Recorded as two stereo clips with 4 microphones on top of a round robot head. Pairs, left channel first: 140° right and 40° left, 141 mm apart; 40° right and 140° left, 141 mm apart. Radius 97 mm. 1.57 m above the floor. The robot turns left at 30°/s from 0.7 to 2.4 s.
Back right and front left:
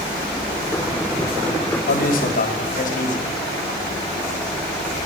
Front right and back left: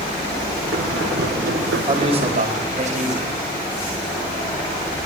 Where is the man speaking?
160° right, 5 m; by 3.3 s 175° right, 5 m.